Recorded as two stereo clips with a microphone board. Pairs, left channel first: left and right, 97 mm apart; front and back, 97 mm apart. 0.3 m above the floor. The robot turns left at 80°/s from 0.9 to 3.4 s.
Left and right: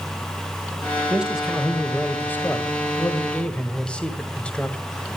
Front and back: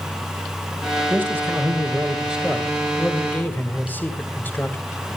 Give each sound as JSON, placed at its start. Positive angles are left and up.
{"t": 1.1, "sound": "a man speaking", "azimuth_deg": -145, "distance_m": 1.5}